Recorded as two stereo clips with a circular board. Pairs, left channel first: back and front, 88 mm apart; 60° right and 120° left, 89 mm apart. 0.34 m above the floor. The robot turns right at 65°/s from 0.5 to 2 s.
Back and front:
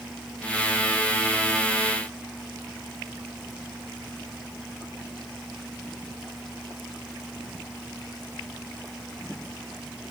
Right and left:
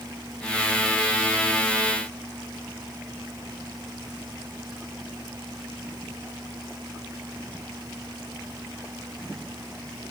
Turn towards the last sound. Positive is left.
No sound to turn to.